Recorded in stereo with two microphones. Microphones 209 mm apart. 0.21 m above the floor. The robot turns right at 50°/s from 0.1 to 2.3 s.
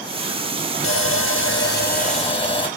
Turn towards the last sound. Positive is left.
turn(degrees=160)